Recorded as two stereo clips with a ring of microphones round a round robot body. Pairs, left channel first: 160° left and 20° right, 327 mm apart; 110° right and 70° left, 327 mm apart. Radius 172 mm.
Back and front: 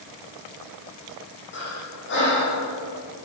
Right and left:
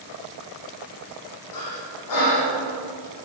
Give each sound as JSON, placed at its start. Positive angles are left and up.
{"t": 1.5, "sound": "breathing", "azimuth_deg": -145, "distance_m": 9.0}